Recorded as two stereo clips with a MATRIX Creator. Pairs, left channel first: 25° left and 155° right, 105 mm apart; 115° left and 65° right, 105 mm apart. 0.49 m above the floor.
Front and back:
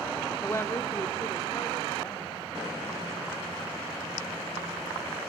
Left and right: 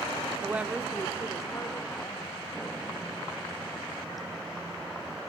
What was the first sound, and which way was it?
A woman speaking, 30° right.